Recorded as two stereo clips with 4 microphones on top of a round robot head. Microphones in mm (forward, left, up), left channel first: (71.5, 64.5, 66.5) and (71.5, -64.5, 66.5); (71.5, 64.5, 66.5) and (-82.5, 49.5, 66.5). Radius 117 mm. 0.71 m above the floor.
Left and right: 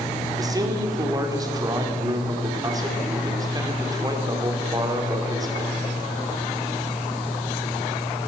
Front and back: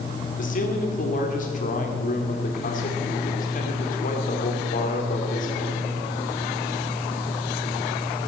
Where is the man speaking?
30° right, 2.5 m.